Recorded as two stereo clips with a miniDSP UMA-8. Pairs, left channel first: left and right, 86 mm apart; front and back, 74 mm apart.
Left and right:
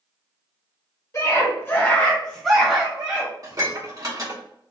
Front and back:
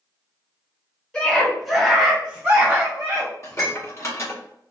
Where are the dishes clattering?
50° right, 1.0 m.